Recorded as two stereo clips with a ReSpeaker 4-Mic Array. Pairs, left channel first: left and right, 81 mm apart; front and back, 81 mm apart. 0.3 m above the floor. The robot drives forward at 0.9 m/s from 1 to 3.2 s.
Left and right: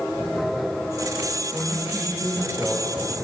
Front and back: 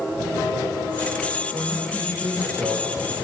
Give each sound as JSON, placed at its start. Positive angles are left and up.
{"t": 1.5, "sound": "a man speaking", "azimuth_deg": -155, "distance_m": 7.5}